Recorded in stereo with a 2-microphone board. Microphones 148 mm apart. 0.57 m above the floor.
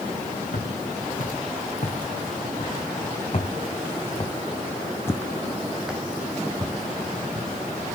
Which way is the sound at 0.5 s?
65° left (ahead or behind).